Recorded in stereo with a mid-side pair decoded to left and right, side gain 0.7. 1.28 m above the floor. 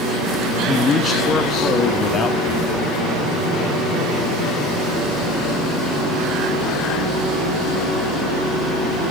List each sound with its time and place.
0.7 s a man speaking: 25° left, 1.8 m; by 2.9 s 40° left, 3.5 m